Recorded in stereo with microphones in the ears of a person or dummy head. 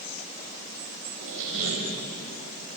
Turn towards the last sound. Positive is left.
turn(degrees=-75)  # may be behind; listen again after turning